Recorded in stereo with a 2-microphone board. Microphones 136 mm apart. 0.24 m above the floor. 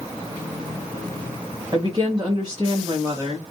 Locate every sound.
1.7 s a woman speaking: 35° right (ahead or behind), 1.3 m